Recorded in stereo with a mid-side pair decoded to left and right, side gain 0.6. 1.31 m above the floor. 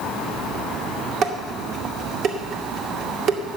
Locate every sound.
1.2 s dishes clattering: 60° right, 2 m